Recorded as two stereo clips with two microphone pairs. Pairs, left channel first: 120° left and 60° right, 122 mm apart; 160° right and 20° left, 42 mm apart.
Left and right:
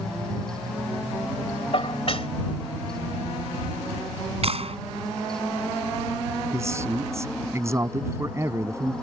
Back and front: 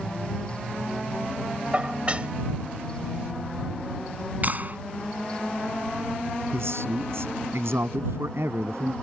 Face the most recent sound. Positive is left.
turn(degrees=5)